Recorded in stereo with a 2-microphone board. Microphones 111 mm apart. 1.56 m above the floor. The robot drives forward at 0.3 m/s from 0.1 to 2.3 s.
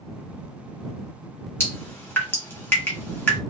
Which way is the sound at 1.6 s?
20° left (ahead or behind).